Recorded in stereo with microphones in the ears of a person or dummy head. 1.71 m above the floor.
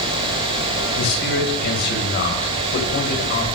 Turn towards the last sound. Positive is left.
turn(degrees=55)  # may be behind; listen again after turning